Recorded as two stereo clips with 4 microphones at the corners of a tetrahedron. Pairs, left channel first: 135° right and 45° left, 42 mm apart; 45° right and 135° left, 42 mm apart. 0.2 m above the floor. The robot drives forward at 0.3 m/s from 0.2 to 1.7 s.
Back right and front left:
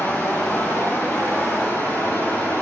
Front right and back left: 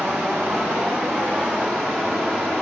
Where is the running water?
175° left, 5 m.